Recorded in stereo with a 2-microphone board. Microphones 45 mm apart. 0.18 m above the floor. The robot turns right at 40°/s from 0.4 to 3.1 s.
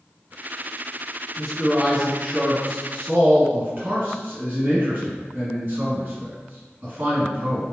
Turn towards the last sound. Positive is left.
turn(degrees=-45)  # may be behind; listen again after turning